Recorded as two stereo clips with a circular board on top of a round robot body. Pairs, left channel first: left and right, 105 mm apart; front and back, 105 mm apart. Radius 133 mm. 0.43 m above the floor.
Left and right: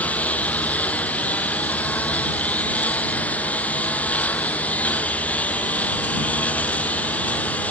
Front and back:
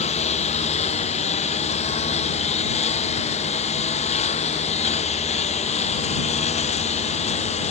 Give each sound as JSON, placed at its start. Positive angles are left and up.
{"t": 0.0, "sound": "a lawn mower", "azimuth_deg": 15}